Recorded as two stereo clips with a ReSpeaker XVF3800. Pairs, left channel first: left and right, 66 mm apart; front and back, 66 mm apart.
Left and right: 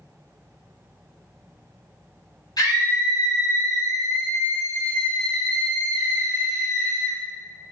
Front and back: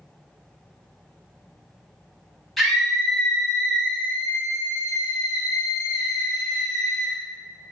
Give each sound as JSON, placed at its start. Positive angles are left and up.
{"t": 2.6, "sound": "a scream", "azimuth_deg": 90, "distance_m": 1.4}